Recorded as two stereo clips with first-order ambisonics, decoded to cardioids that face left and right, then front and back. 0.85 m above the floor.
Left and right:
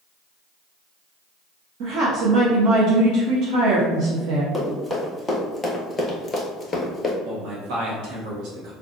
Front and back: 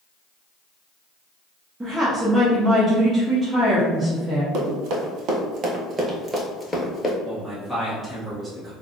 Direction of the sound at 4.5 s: 175° left.